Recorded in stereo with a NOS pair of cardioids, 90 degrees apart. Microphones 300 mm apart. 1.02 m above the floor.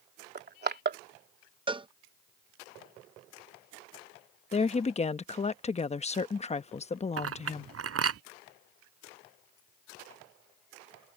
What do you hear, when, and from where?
0.3 s crushing: 35° right
1.7 s a cowbell: 15° right
4.5 s a woman speaking: 20° left
7.2 s a clink: 50° right